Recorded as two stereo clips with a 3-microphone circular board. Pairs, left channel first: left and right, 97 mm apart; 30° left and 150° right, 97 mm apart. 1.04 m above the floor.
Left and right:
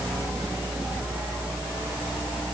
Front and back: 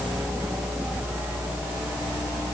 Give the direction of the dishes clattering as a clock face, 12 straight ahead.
No dishes clattering in this recording.